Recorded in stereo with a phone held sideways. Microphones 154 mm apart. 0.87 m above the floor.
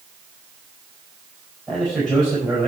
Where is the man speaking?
5° left (ahead or behind), 4.5 m.